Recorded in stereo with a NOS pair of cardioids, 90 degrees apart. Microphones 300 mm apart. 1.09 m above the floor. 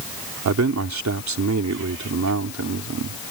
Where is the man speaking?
70° right.